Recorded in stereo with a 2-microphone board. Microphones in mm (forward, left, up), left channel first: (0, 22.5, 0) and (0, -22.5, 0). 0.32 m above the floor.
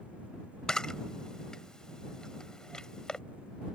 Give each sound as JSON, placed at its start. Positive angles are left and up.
{"t": 0.7, "sound": "a camera shutter", "side_deg": 15}